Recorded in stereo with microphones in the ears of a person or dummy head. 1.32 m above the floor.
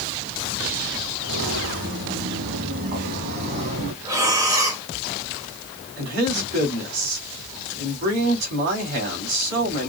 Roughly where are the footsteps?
Right.